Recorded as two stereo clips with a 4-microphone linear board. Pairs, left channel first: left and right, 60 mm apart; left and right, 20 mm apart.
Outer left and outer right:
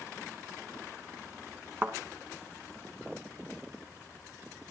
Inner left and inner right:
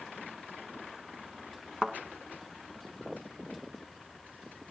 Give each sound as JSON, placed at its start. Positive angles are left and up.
{"t": 1.8, "sound": "a thud", "side_deg": -35, "distance_m": 2.5}